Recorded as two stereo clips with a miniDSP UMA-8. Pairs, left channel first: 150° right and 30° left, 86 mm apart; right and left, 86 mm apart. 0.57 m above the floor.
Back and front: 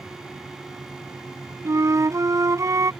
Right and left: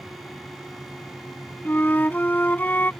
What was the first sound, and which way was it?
A flute, 20° right.